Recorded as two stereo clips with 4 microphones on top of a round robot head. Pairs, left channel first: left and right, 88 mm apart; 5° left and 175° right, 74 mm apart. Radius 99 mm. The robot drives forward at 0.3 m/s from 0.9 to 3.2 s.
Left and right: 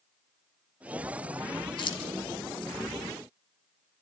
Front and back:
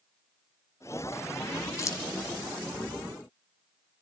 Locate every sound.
1.8 s keys jangling: 55° left, 1.7 m; by 2.1 s 60° left, 1.6 m